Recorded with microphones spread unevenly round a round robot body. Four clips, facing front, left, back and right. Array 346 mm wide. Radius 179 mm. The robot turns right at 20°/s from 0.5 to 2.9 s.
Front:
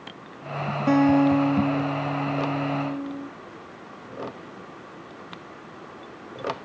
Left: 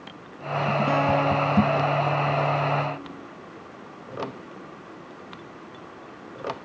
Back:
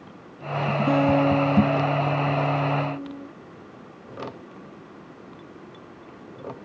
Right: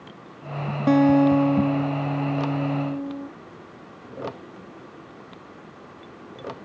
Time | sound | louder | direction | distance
0.9 | a guitar | right 9 dB, front 2 dB | 110° right | 0.7 m